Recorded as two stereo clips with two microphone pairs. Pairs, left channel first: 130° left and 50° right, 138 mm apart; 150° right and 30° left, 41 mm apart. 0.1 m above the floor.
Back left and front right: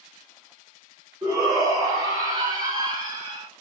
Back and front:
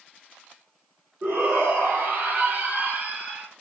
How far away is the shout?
About 2.5 m.